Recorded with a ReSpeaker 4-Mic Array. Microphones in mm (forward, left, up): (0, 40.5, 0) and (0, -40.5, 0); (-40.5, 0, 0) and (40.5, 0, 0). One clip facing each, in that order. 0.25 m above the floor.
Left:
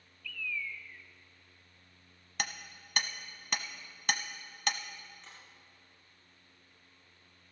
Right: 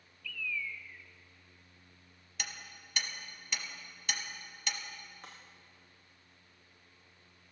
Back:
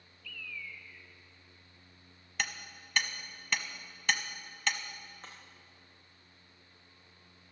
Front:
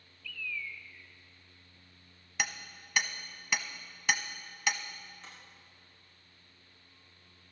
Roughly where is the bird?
Behind.